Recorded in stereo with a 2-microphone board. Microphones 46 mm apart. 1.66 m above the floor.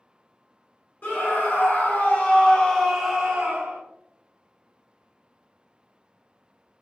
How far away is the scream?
About 1.1 m.